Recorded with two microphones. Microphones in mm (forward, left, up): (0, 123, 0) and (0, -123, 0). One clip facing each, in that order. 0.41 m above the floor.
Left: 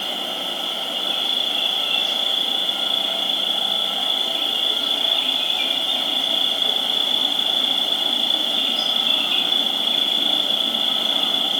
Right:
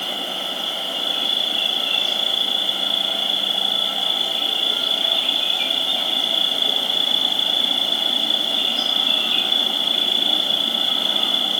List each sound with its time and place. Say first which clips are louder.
0.0 s an insect: even; 25° left (ahead or behind), 3 m